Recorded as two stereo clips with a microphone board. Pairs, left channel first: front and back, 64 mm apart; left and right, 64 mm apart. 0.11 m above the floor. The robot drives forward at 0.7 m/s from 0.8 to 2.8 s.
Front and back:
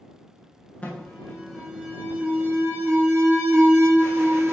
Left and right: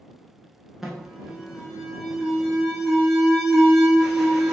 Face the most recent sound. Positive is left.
turn(degrees=-175)